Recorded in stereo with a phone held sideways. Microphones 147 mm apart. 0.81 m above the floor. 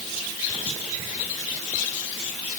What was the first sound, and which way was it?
Only background noise.